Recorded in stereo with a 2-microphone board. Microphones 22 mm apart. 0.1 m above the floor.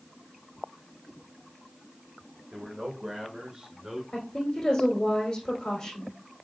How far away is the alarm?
I don't hear an alarm.